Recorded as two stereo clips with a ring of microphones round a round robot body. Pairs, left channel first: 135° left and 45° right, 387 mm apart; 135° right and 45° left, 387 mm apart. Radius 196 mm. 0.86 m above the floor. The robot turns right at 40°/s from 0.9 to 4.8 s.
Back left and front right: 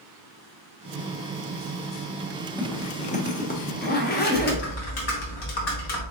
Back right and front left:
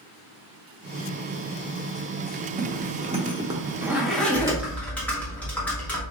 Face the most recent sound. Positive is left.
turn(degrees=140)